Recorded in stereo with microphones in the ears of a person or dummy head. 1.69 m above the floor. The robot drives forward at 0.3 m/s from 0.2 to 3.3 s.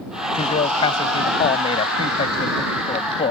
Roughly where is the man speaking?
Left.